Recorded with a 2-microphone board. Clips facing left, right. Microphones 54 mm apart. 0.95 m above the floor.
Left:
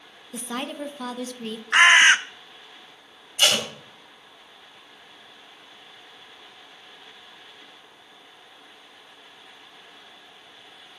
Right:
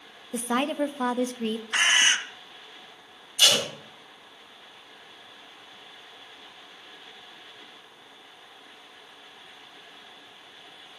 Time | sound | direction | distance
0.3 | a woman speaking | 25° right (ahead or behind) | 0.6 m
1.7 | a bird | 80° left | 0.6 m
3.4 | tape being pulled | 40° left (ahead or behind) | 3 m